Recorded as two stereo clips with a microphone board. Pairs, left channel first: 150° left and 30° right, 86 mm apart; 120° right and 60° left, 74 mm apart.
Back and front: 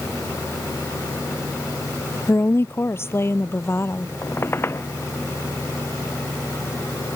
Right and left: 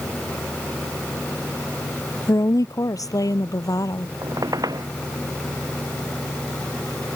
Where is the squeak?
90° left.